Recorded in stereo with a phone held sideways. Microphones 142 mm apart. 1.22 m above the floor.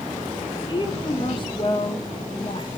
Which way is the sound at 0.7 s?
35° left (ahead or behind).